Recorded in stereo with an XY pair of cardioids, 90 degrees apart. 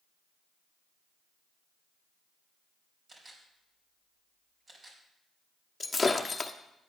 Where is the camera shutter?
45° right, 4.5 m.